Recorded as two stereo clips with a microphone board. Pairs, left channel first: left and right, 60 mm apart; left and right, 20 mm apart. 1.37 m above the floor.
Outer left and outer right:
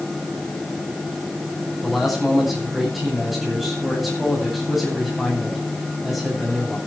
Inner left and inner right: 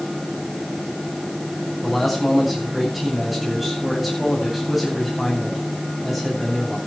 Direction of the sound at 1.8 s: Centre (ahead or behind).